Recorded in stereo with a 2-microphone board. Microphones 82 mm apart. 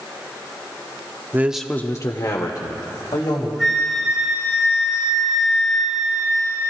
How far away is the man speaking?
About 0.8 m.